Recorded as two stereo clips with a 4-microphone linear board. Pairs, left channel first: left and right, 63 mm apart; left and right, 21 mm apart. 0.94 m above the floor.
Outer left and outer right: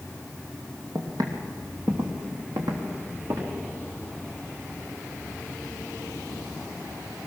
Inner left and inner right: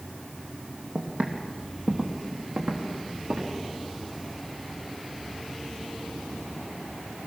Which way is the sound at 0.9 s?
55° right (ahead or behind).